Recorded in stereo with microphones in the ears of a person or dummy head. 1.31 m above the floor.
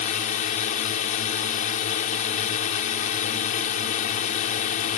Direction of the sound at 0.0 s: 45° left (ahead or behind).